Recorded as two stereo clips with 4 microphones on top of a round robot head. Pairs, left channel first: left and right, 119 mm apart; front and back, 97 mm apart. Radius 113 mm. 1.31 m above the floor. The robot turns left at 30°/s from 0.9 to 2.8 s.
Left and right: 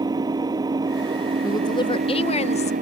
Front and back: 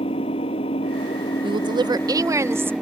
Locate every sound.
0.0 s an engine running: 35° right; by 2.8 s 95° right
1.4 s a woman speaking: 150° left; by 2.7 s 115° left